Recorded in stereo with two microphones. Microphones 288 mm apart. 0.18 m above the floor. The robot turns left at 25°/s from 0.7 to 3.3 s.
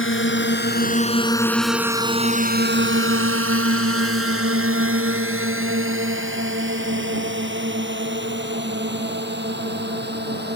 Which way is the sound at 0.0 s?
45° left (ahead or behind).